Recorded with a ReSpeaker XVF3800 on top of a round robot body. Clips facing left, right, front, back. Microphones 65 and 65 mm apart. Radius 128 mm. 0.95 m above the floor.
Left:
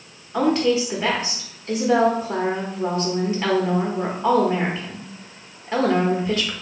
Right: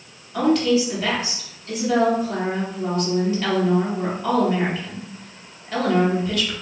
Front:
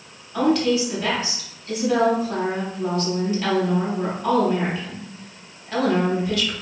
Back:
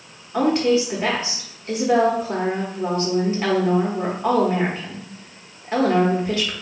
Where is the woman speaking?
135° left, 0.8 m.